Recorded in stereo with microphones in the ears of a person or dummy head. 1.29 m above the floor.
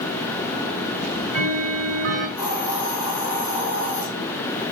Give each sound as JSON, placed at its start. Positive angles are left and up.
{"t": 1.0, "sound": "ticking", "side_deg": -75, "distance_m": 5.0}
{"t": 2.4, "sound": "a hiss", "side_deg": 5, "distance_m": 9.0}